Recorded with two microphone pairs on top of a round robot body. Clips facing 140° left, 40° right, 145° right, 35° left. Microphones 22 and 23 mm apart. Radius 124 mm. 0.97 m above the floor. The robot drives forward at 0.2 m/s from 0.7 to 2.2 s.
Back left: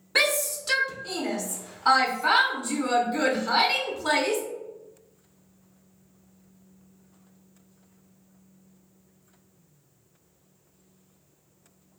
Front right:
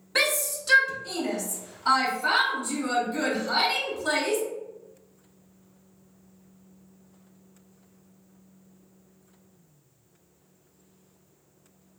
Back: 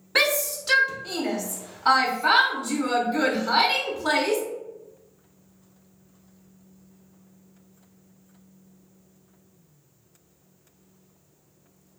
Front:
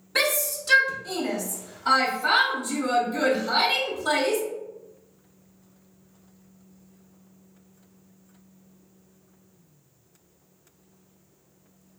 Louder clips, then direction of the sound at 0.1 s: Back left 2 dB, back 2 dB; straight behind.